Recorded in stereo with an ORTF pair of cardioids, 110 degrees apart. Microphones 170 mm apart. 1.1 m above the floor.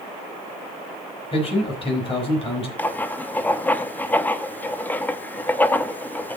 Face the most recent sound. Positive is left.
turn(degrees=10)